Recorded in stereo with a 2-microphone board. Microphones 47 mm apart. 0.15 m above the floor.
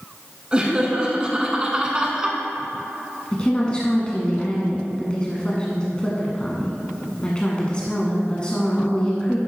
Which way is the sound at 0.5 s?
20° right (ahead or behind).